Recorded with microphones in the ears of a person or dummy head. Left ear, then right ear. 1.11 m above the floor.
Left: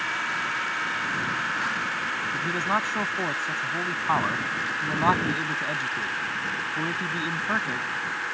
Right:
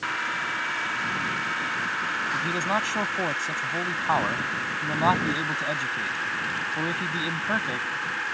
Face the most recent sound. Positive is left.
turn(degrees=-15)  # may be behind; listen again after turning